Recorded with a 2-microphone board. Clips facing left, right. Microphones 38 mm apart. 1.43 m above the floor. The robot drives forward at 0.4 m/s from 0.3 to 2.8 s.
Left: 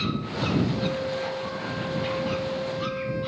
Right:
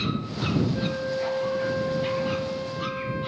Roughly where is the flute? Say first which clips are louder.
Even; right.